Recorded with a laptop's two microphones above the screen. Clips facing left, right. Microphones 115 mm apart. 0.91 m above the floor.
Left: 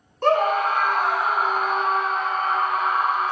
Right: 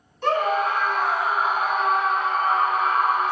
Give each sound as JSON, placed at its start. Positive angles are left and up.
{"t": 0.2, "sound": "a scream", "side_deg": 50, "distance_m": 0.8}